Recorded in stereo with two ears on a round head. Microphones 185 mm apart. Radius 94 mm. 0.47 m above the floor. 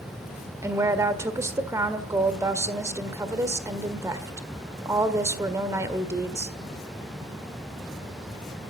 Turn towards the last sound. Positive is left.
turn(degrees=-15)  # may be behind; listen again after turning